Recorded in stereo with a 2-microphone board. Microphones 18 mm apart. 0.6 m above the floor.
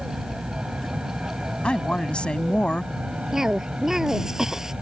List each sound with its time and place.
0.0 s an aircraft: 60° right (ahead or behind); by 4.8 s 70° right (ahead or behind)
1.6 s a woman speaking: 70° left (ahead or behind)
3.3 s a cough: 25° right (ahead or behind)